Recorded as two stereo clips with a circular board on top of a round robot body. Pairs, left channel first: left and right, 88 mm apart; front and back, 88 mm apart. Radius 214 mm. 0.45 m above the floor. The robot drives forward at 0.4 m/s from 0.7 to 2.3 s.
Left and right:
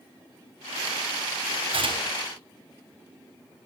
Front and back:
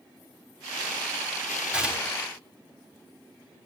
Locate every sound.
1.7 s tearing paper: 100° right, 4 m; by 2.3 s 105° right, 4 m